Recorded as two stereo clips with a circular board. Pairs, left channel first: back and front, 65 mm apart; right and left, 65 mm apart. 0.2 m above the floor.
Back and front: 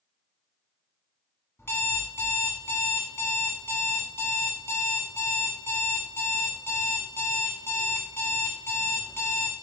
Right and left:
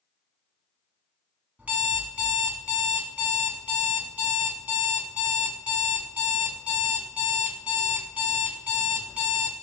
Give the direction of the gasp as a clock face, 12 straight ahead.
I don't hear a gasp.